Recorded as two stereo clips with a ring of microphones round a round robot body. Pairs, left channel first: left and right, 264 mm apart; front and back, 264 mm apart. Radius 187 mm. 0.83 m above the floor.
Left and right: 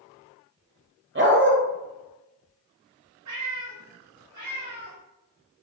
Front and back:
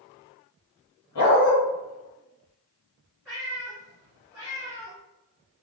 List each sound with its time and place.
1.1 s a dog barking: 45° right, 1.5 m
3.2 s a cat meowing: 90° right, 2.5 m